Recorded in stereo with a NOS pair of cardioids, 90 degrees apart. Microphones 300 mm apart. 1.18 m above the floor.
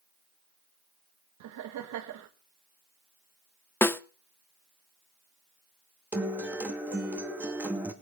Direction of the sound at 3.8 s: 10° left.